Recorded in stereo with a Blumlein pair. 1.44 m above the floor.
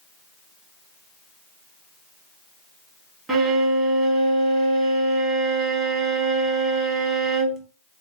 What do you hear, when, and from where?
3.3 s a violin: 20° right, 0.9 m